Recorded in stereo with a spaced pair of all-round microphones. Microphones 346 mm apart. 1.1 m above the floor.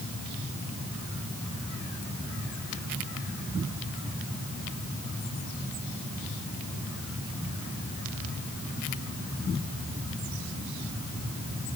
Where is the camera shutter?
No camera shutter in this recording.